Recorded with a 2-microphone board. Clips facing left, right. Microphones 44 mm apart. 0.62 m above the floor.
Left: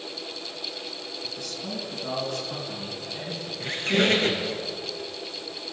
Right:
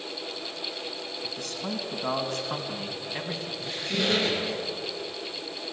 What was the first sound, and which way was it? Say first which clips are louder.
A man speaking: right 2 dB; 50° right (ahead or behind).